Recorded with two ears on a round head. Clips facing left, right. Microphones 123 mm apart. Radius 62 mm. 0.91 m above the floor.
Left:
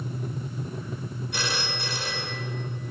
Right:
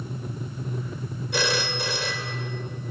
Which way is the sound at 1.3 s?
65° right (ahead or behind).